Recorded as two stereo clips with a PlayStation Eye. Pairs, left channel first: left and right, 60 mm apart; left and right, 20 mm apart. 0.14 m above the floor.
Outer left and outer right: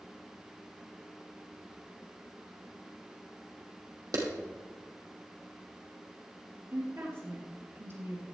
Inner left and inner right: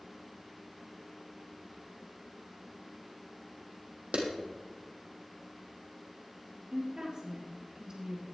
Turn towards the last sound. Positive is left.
turn(degrees=-45)  # may be behind; listen again after turning